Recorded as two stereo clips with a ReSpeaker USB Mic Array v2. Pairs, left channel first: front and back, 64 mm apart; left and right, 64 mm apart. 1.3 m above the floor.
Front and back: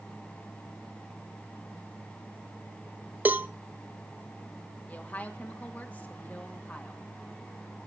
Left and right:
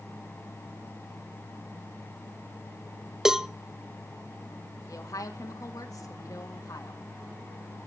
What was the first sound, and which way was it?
A cowbell, 165° right.